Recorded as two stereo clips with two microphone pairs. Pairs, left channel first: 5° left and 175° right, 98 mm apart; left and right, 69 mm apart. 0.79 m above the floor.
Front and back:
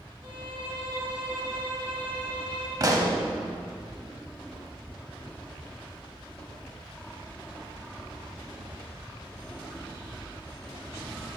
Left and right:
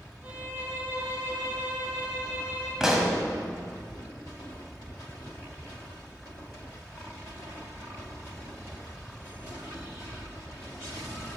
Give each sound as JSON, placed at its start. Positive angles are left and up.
{"t": 0.2, "sound": "a violin", "azimuth_deg": -170, "distance_m": 2.0}
{"t": 2.8, "sound": "a pop", "azimuth_deg": -175, "distance_m": 0.7}